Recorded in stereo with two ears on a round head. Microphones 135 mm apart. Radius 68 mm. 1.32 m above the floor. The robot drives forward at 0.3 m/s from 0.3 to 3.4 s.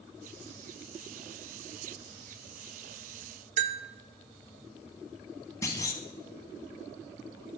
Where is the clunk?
20° left (ahead or behind), 0.7 m.